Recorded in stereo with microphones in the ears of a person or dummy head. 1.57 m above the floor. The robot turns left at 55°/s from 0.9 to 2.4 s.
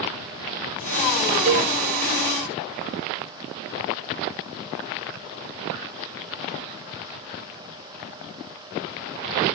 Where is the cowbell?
35° right (ahead or behind), 4 m; by 1.7 s 50° right (ahead or behind), 4 m.